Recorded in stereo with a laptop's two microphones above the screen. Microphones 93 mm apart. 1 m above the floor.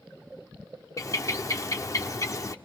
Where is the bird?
40° left (ahead or behind), 1.2 m.